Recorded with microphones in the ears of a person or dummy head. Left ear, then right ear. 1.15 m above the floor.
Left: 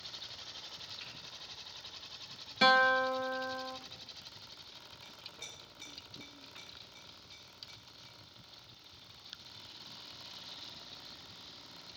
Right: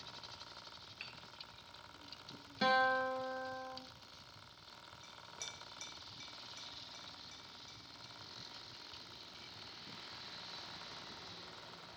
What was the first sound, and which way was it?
Hammering, 30° right (ahead or behind).